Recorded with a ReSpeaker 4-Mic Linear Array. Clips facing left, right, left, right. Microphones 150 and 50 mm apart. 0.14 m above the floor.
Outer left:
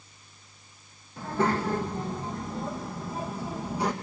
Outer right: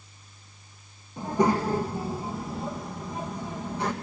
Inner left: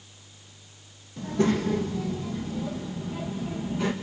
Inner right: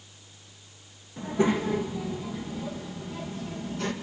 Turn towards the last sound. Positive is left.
turn(degrees=10)  # may be behind; listen again after turning